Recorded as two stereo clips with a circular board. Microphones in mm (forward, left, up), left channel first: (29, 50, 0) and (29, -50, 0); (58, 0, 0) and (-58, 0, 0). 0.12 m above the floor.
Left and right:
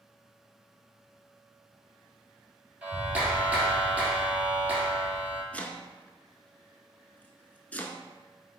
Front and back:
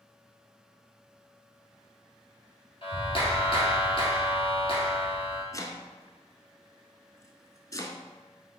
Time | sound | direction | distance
2.8 | a clap | 20° right | 1.7 m
5.5 | chopping | 30° left | 0.5 m